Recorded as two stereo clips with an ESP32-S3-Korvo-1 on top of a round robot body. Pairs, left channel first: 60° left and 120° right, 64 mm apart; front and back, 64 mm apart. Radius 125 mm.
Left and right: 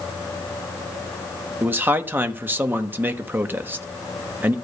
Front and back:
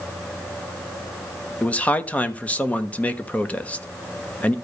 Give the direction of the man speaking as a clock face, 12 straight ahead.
2 o'clock.